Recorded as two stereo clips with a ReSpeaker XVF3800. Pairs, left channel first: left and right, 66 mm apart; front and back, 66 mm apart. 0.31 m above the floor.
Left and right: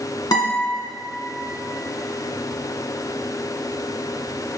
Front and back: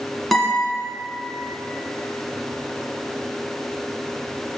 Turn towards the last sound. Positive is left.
turn(degrees=85)